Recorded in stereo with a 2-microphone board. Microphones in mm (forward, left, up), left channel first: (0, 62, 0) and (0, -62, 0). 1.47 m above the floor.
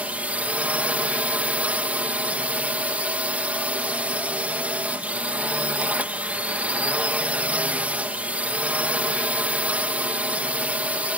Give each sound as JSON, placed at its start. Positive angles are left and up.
{"t": 0.0, "sound": "a drone", "side_deg": -10}